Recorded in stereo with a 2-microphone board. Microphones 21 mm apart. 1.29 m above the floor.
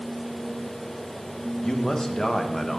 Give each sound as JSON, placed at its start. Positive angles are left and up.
{"t": 1.6, "sound": "a man speaking", "side_deg": 25, "distance_m": 1.3}